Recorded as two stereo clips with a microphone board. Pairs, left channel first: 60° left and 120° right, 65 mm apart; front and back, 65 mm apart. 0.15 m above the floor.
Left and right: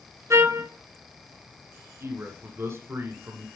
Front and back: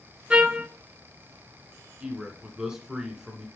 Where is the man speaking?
100° right, 1.4 m.